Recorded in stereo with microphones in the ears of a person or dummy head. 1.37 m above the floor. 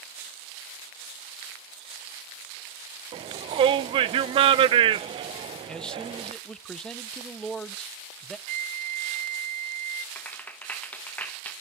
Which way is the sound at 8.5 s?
45° right (ahead or behind).